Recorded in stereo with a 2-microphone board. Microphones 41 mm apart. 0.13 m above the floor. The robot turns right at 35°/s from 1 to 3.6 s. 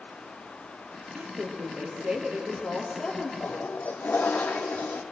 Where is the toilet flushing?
35° left (ahead or behind), 1.7 m; by 5.0 s 40° left (ahead or behind), 1.7 m.